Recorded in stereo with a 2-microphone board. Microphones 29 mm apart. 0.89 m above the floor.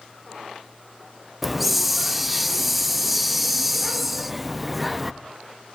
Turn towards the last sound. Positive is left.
turn(degrees=0)  # may be behind; listen again after turning